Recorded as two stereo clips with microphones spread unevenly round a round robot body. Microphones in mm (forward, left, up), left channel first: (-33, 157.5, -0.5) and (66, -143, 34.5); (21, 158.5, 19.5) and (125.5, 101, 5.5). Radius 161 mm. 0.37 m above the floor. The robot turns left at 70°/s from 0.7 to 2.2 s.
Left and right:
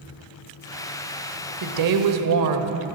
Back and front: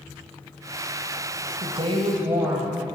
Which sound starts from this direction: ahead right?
A woman speaking, at 1.6 s.